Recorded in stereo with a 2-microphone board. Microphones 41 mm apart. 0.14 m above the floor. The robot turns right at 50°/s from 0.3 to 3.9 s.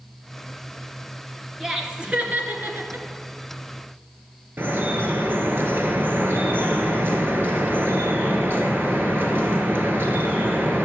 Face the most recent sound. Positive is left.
turn(degrees=-55)  # may be behind; listen again after turning